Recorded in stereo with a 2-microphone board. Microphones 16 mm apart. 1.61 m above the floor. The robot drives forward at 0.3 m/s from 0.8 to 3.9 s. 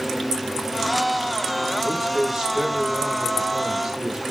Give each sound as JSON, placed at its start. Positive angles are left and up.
{"t": 1.8, "sound": "a man speaking", "side_deg": -30, "distance_m": 3.0}